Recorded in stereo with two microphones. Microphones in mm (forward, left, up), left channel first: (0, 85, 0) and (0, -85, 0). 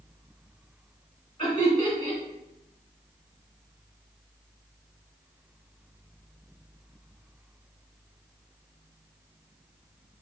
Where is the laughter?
30° left (ahead or behind), 1.8 m.